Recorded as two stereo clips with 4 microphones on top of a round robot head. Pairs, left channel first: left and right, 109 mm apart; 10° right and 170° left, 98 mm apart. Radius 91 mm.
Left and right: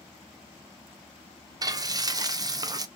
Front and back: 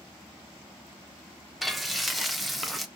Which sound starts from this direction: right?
Frying, at 1.6 s.